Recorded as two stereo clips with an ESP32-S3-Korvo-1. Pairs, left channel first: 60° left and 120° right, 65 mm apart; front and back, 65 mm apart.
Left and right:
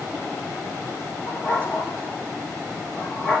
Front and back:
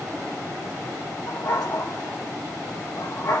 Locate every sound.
1.3 s a dog barking: 5° right, 7 m